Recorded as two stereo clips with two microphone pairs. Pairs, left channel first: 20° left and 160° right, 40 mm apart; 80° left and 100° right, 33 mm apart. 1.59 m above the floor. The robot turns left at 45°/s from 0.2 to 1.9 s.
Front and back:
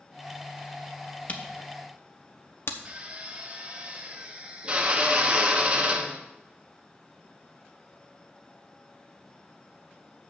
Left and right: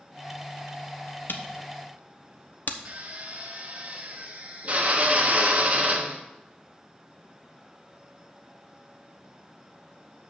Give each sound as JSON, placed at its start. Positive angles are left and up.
{"t": 1.3, "sound": "a camera shutter", "azimuth_deg": 75, "distance_m": 0.9}
{"t": 2.9, "sound": "a drill", "azimuth_deg": -115, "distance_m": 1.2}